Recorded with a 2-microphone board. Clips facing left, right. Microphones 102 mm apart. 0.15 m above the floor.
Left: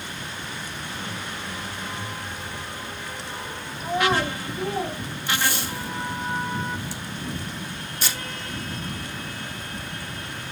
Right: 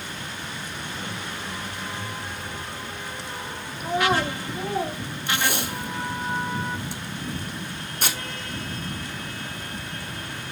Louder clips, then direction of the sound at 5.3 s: Even; 60° right (ahead or behind).